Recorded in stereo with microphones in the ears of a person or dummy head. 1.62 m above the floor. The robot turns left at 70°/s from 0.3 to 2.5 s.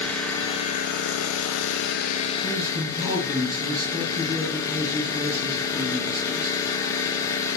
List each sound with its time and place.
0.0 s an engine running: 170° left, 0.7 m; by 7.6 s 15° left, 0.7 m
2.4 s a man speaking: 20° right (ahead or behind), 2.5 m; by 6.6 s 25° right (ahead or behind), 2.5 m